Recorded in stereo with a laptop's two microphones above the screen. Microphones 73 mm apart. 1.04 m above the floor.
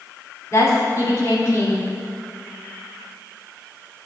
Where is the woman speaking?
40° left (ahead or behind), 3 m.